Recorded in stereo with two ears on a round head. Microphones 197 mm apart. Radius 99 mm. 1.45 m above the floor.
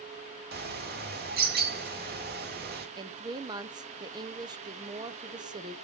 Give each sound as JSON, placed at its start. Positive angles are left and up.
{"t": 0.5, "sound": "a bird", "side_deg": -45, "distance_m": 1.5}
{"t": 3.0, "sound": "a woman speaking", "side_deg": -20, "distance_m": 0.8}